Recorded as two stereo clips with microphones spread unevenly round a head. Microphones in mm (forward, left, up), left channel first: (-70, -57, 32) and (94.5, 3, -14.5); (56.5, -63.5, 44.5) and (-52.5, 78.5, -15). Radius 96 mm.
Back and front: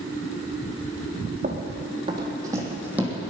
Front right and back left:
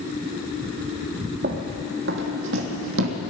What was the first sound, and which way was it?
Running footsteps, 80° left.